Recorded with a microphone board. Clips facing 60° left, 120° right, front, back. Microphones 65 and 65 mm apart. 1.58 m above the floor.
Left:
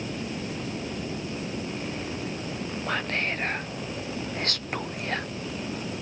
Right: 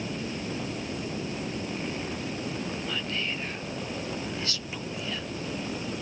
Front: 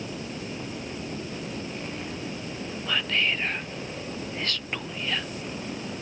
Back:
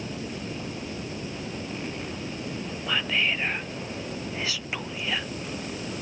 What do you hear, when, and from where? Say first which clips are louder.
2.9 s whispering: left 4 dB, even; 100° left